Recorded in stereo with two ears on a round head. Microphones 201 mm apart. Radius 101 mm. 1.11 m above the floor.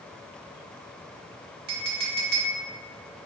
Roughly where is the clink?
Right.